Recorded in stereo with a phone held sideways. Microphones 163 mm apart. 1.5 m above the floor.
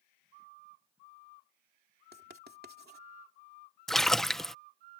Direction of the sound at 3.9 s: Centre (ahead or behind).